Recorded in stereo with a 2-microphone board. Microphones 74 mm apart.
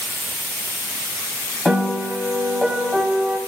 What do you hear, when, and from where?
1.6 s a piano: centre (ahead or behind), 1.7 m